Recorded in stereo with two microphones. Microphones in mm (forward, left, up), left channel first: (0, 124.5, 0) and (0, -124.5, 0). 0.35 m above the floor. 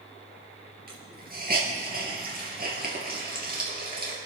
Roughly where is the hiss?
Right.